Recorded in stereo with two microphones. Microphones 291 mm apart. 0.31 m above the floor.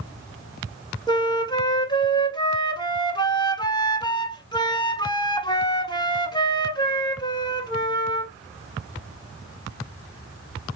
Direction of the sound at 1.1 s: 15° left (ahead or behind).